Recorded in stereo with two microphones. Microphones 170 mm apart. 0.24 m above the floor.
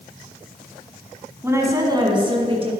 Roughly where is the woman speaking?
Centre.